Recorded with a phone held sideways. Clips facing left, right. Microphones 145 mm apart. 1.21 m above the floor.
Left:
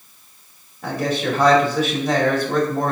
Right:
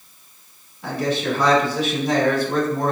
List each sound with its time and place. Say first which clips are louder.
0.8 s a man speaking: even; 45° left (ahead or behind), 3 m